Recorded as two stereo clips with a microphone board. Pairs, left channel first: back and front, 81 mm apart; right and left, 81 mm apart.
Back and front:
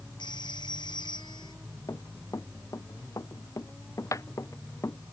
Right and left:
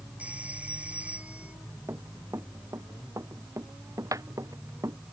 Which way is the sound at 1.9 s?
140° left.